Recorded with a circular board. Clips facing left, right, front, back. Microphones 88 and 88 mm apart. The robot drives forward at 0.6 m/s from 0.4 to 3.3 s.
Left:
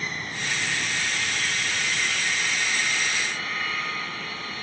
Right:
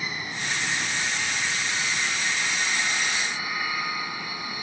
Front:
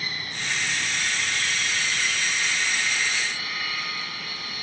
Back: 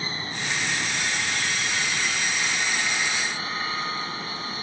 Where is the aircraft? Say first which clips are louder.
Even, back 2 dB; 165° right; by 4.6 s 155° right.